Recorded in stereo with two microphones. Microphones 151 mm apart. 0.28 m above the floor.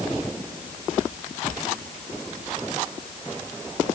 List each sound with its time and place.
Only background noise.